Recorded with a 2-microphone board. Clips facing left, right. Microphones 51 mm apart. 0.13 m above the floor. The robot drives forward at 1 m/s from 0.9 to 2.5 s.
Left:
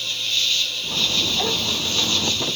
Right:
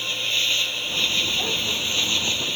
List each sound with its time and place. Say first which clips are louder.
0.0 s an insect: even; 25° right (ahead or behind); by 2.6 s 20° right (ahead or behind)